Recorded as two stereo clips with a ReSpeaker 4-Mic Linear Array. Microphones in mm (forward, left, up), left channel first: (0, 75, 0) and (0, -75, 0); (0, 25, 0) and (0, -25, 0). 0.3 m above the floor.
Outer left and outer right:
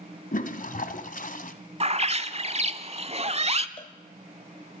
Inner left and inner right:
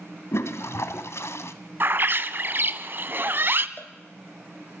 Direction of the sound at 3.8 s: 40° left (ahead or behind).